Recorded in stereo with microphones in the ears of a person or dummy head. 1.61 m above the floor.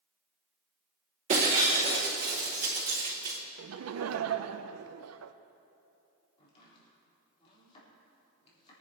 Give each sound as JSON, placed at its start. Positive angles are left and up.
{"t": 1.3, "sound": "breaking glass", "side_deg": -40, "distance_m": 2.0}
{"t": 3.6, "sound": "laughter", "side_deg": -85, "distance_m": 0.5}
{"t": 6.4, "sound": "chopping", "side_deg": 30, "distance_m": 4.0}